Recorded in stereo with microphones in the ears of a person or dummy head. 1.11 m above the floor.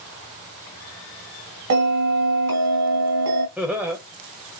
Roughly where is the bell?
Right.